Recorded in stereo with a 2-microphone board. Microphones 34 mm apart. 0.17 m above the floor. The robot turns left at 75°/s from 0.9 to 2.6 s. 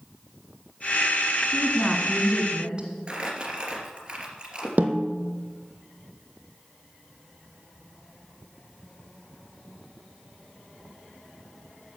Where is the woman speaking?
35° left, 1.7 m; by 2.9 s 50° right, 1.7 m.